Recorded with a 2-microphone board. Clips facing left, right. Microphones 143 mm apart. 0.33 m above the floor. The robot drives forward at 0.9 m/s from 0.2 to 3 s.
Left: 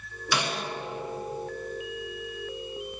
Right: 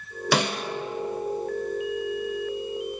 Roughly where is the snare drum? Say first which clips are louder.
Right 5 dB; right.